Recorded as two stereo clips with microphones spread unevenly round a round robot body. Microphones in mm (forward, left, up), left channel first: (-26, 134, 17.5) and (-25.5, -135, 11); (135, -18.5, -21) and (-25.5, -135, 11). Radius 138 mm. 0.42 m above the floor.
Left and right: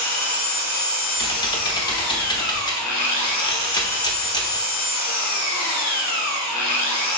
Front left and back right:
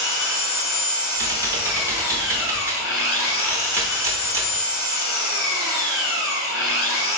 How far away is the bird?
I don't hear a bird.